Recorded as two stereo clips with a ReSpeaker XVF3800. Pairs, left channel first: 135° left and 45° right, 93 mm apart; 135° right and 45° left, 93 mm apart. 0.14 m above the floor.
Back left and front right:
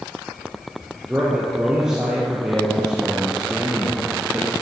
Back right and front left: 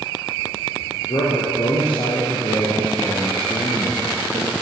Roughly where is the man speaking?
Behind right.